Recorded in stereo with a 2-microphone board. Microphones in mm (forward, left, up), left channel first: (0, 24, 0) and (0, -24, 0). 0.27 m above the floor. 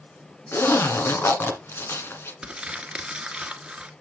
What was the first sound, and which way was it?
A zipper, 60° left (ahead or behind).